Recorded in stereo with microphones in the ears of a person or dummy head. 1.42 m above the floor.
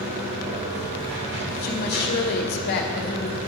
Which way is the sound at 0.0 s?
55° right (ahead or behind).